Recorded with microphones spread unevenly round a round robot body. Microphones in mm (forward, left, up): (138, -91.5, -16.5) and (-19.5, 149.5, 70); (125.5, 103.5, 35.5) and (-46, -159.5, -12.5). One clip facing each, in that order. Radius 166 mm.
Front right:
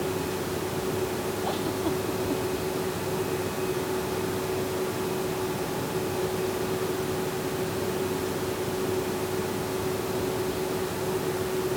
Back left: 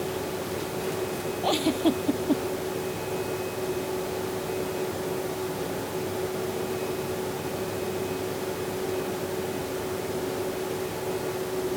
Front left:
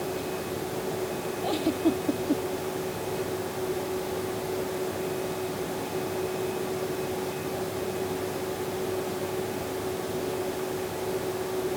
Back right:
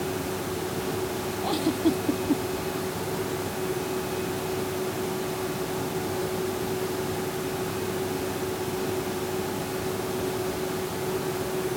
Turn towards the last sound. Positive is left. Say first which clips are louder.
# back left 8 dB, back right 1 dB
turn(degrees=160)